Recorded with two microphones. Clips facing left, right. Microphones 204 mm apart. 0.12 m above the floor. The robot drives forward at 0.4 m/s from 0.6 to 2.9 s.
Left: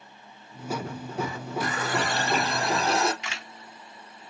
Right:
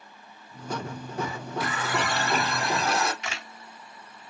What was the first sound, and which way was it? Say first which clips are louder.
A running tap: left 1 dB; 40° left (ahead or behind).